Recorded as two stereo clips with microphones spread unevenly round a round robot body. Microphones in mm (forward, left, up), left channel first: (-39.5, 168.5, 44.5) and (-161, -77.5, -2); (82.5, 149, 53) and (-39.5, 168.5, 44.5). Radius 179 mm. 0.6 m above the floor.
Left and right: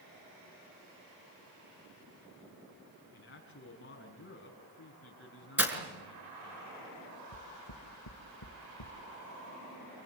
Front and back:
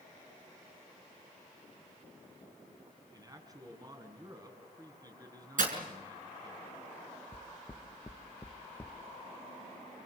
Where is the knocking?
65° left, 1.7 m.